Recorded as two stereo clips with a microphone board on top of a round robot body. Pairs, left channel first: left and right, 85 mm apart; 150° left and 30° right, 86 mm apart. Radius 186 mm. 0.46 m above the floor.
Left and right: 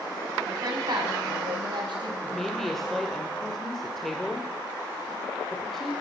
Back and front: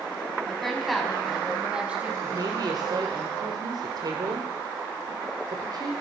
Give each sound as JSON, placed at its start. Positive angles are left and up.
{"t": 0.5, "sound": "a woman speaking", "azimuth_deg": -125, "distance_m": 5.5}
{"t": 2.2, "sound": "a woman speaking", "azimuth_deg": 5, "distance_m": 2.5}